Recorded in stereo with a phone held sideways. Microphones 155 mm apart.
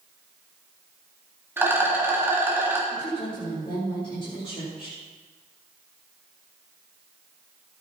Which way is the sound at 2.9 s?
35° left (ahead or behind).